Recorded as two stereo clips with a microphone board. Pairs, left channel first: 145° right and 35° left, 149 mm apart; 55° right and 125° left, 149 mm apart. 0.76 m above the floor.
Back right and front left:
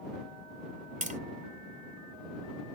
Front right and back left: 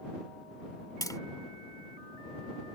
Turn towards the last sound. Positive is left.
turn(degrees=10)